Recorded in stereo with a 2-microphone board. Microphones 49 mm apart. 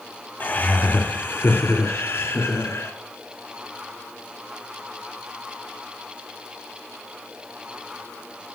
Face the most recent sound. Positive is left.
turn(degrees=60)  # may be behind; listen again after turning